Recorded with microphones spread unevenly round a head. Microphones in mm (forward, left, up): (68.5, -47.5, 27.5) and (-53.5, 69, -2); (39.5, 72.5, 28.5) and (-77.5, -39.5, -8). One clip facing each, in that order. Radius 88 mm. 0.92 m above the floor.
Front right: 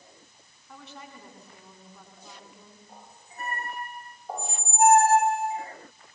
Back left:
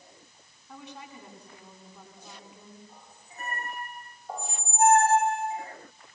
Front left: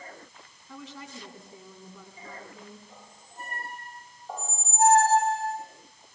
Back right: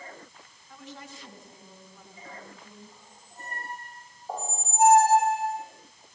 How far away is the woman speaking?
About 9 m.